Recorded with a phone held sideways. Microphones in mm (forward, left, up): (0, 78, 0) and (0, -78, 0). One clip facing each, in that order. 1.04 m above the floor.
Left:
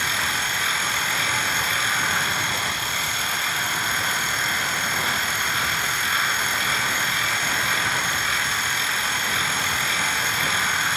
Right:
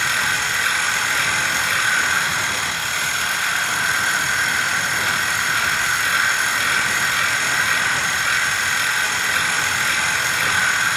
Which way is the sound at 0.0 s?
65° right (ahead or behind).